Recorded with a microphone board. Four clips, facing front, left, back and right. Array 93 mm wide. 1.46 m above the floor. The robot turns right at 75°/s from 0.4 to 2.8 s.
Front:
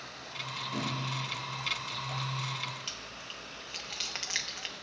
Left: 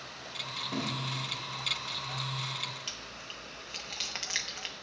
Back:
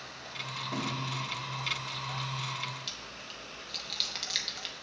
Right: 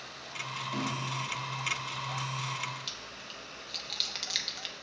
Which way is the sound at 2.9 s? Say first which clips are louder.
Even, even; 45° left.